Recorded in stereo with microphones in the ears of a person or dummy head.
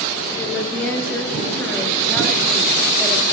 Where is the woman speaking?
15° left (ahead or behind), 4 m; by 3.3 s centre (ahead or behind), 5 m.